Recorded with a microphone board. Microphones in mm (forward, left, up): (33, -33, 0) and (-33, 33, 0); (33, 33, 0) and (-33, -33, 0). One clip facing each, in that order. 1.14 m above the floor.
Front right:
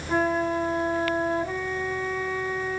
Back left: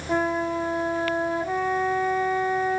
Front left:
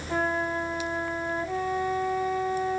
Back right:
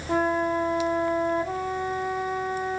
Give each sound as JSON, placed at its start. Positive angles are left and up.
{"t": 0.1, "sound": "a flute", "azimuth_deg": -155, "distance_m": 1.8}